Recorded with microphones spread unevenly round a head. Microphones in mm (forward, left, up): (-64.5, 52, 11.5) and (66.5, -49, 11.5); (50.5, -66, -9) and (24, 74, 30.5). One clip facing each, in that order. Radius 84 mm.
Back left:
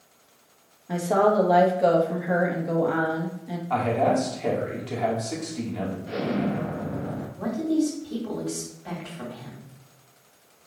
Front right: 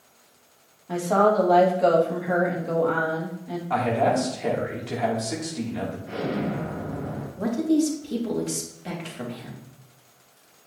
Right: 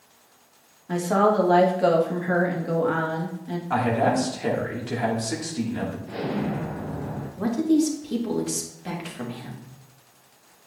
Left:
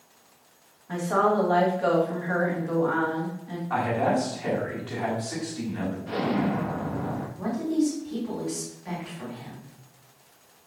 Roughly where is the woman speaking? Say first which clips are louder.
Even, right 3 dB; behind right.